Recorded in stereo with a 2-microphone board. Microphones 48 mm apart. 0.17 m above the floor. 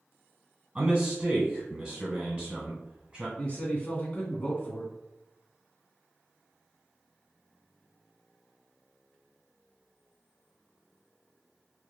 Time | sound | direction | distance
0.8 | a man speaking | 20° right (ahead or behind) | 1.6 m
3.4 | a man speaking | 30° left (ahead or behind) | 1.4 m